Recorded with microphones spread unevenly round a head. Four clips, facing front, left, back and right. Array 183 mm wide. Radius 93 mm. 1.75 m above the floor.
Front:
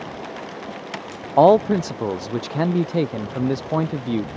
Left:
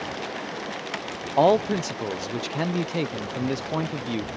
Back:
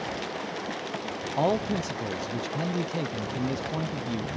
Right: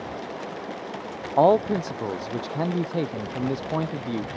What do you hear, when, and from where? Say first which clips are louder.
1.4 s a man speaking: right 1 dB, front 13 dB; 5° right